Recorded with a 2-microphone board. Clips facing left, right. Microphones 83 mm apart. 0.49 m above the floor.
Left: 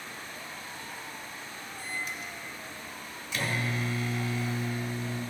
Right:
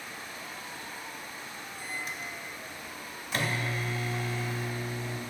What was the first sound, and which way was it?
A microwave, 45° right (ahead or behind).